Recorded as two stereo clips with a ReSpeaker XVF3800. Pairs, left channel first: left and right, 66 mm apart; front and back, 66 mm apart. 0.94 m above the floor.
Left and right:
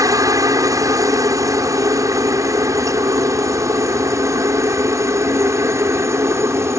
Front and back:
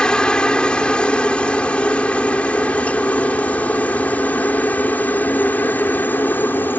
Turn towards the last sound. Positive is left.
turn(degrees=-55)